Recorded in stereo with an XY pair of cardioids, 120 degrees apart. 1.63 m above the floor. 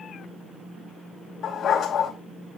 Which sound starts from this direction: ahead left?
A dog barking, at 1.4 s.